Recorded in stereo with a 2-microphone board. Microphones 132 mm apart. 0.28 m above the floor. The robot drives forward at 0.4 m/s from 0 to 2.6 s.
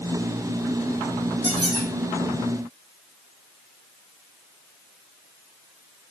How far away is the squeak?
About 3.5 m.